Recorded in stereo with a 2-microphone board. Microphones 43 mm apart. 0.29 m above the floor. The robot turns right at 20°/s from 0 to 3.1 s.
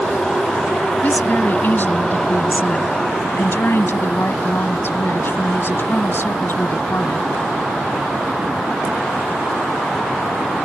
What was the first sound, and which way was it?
A woman speaking, 45° left.